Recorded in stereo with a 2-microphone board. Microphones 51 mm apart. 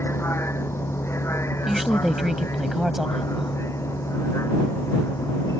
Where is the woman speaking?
10° right (ahead or behind).